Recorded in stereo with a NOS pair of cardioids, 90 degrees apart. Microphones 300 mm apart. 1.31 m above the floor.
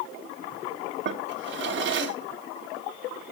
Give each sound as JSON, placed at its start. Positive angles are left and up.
{"t": 1.1, "sound": "a drawer", "azimuth_deg": -40, "distance_m": 2.0}